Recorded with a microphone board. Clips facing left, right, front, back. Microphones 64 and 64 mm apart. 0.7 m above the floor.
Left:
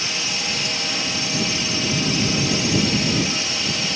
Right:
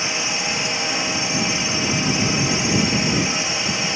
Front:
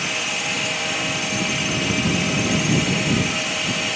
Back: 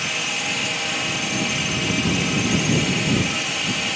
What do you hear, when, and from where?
0.0 s a drone: 90° right